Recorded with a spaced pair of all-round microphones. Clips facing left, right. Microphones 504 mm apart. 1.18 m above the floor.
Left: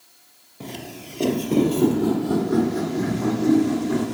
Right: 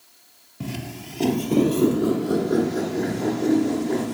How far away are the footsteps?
About 1.3 m.